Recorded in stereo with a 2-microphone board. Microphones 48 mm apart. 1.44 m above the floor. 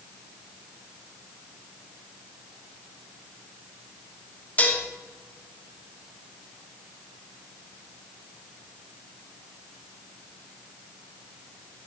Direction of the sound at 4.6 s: 35° left (ahead or behind).